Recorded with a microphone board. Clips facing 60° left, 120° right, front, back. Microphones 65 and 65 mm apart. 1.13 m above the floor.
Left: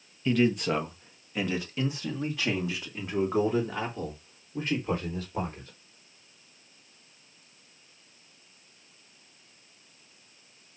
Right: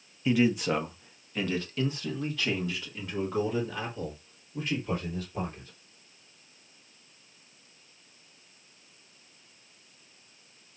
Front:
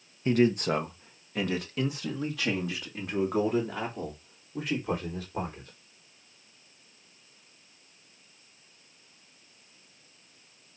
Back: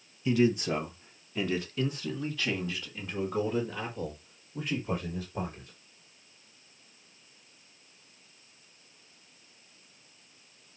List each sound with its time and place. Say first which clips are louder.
0.2 s a man speaking: even, front 2 dB; 40° right, 1.3 m; by 5.7 s 5° left, 4.5 m